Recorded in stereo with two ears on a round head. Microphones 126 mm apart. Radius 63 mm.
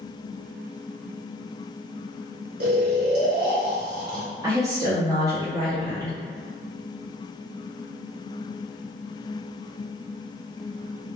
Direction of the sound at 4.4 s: 25° right (ahead or behind).